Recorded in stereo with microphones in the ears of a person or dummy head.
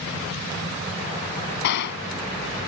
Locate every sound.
1.6 s a gunshot: 60° left (ahead or behind)